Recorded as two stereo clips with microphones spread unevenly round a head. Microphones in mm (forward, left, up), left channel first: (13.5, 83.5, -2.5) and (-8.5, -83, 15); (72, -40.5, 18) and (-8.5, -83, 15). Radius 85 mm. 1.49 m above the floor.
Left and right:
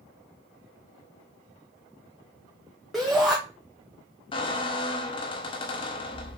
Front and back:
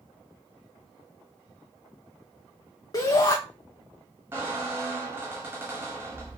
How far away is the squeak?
About 0.6 m.